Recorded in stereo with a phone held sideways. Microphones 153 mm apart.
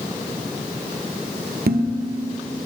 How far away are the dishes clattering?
About 0.9 m.